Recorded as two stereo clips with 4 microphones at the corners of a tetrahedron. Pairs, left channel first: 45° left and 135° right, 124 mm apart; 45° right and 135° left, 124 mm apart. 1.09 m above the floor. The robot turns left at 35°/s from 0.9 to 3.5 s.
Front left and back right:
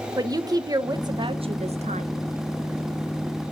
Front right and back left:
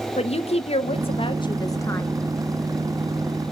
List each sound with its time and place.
0.2 s a woman speaking: 75° right, 0.7 m; by 2.1 s 115° right, 0.7 m